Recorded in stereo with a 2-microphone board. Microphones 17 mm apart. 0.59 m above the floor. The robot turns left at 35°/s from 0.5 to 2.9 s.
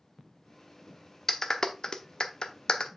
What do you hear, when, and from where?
1.3 s a clap: 25° left (ahead or behind), 0.8 m; by 2.9 s 50° left (ahead or behind), 0.8 m